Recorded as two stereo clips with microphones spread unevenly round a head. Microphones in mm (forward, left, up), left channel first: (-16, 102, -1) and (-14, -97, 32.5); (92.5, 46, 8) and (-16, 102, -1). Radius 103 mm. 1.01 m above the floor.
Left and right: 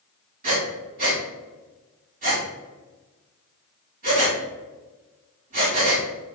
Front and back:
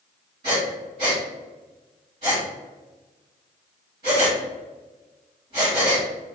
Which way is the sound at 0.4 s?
140° right.